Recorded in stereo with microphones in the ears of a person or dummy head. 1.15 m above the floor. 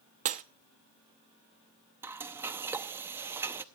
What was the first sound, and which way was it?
Breaking glass, 40° right (ahead or behind).